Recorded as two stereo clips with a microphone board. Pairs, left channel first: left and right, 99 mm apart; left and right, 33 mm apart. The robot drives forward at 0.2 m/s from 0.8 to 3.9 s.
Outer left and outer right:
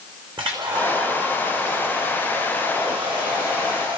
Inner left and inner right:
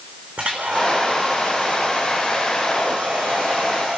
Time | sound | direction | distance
0.4 | a hair dryer | 50° right (ahead or behind) | 5 m